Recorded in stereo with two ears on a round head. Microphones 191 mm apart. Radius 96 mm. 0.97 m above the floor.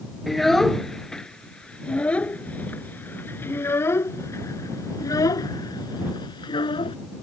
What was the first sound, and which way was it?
A child speaking, centre (ahead or behind).